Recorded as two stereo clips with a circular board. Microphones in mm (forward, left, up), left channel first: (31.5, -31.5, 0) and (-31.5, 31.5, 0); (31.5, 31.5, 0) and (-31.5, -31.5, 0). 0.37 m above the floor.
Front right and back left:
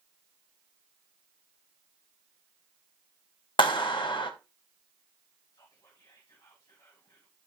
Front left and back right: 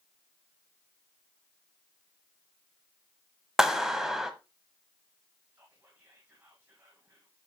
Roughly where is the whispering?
Right.